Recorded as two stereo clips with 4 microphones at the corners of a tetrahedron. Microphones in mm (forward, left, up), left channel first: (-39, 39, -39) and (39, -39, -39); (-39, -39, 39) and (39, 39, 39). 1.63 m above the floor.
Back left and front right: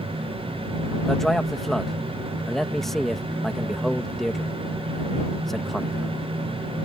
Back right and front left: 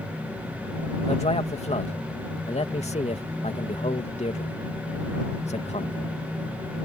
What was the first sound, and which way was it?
A man speaking, 140° right.